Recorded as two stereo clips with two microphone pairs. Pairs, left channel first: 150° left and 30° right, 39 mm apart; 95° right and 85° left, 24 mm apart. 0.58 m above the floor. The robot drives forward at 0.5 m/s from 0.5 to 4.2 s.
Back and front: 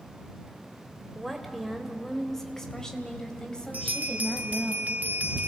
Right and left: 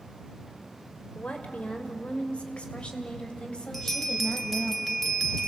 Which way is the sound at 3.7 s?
10° right.